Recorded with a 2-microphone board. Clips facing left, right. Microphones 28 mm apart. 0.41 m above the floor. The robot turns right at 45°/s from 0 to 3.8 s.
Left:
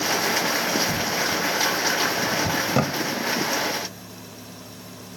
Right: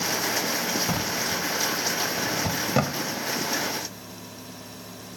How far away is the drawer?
About 1.4 m.